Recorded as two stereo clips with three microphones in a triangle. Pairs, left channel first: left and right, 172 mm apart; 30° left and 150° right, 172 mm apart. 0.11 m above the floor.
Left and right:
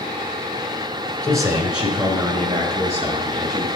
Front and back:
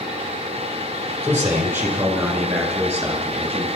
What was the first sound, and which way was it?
A man speaking, 165° left.